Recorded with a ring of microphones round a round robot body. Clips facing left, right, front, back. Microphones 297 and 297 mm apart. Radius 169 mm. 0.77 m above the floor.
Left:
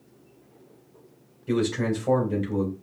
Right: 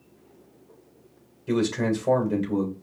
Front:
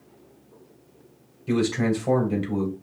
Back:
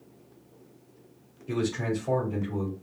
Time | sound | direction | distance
1.5 | a man speaking | 15° right | 3.5 m